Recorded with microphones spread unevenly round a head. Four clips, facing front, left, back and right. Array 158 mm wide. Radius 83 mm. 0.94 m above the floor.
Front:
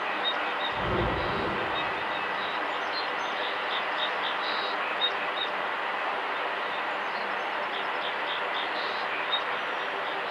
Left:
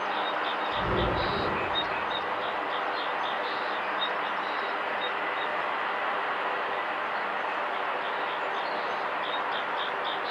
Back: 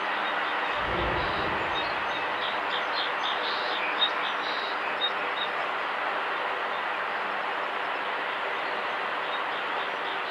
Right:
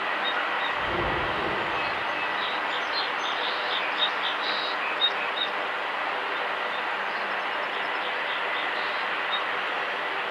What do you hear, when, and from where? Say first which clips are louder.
0.7 s breathing: even, even; 35° left, 7 m